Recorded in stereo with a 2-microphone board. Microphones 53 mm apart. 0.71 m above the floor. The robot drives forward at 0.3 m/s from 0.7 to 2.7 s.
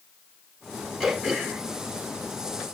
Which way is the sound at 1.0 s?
Centre (ahead or behind).